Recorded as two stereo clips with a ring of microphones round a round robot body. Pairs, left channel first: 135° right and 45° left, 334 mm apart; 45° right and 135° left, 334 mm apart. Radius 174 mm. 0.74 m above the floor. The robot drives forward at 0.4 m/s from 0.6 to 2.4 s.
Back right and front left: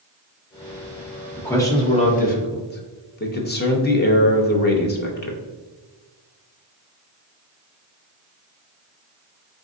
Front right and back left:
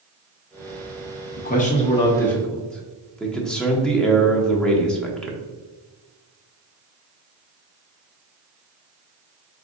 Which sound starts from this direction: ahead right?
A man speaking, at 1.4 s.